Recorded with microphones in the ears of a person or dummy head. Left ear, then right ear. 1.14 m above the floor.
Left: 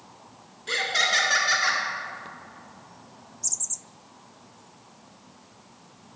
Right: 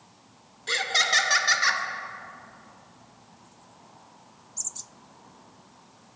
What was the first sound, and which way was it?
Laughter, 20° right (ahead or behind).